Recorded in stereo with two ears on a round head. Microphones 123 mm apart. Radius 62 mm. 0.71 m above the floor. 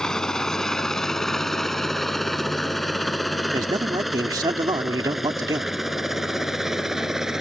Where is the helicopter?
5° left (ahead or behind); by 7.4 s 5° right (ahead or behind).